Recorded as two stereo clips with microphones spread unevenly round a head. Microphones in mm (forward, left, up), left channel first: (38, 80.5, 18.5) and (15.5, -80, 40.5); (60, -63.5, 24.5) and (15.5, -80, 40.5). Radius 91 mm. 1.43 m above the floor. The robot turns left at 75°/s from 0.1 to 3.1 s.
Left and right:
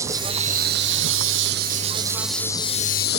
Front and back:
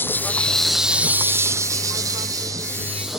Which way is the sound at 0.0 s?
25° right.